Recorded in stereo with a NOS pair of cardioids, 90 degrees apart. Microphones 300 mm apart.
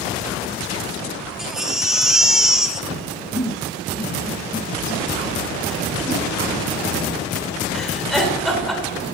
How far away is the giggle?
About 3.5 m.